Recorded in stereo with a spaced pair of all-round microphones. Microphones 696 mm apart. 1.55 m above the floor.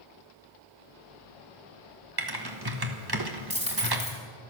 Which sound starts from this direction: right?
Typing on a keyboard, at 2.2 s.